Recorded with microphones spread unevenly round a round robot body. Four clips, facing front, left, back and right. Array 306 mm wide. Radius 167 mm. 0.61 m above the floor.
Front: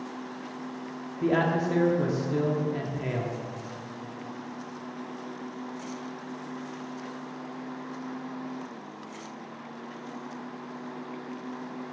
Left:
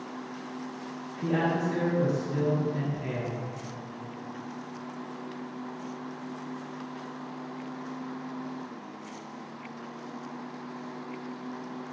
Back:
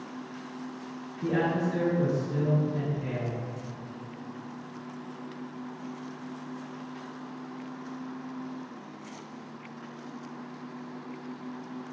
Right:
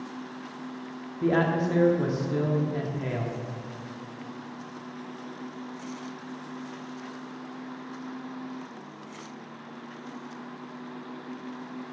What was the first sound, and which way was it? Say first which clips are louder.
A man speaking: right 3 dB, front 2 dB; 30° right.